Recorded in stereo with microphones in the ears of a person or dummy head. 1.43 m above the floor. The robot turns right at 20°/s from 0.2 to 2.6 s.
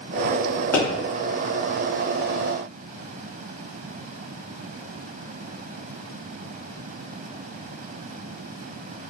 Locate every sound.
0.7 s a pop: 10° left (ahead or behind), 1.2 m